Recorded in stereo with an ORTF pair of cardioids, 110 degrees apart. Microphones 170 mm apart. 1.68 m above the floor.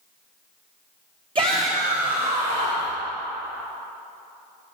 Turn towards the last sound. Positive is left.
turn(degrees=-45)